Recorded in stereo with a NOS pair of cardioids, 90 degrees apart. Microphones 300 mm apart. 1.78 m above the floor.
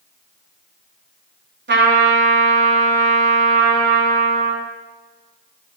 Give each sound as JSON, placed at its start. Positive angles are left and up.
{"t": 1.7, "sound": "a trumpet", "azimuth_deg": -40, "distance_m": 4.5}